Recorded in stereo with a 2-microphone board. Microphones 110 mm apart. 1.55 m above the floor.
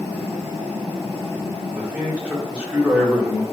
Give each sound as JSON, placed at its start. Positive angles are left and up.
{"t": 1.7, "sound": "a man speaking", "side_deg": -10, "distance_m": 1.1}